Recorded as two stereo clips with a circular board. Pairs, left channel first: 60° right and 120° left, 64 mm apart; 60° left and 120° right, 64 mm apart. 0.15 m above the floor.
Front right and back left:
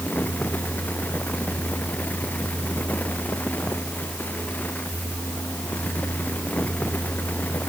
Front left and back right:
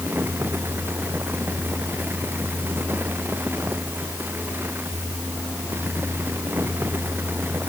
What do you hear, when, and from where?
Only background noise.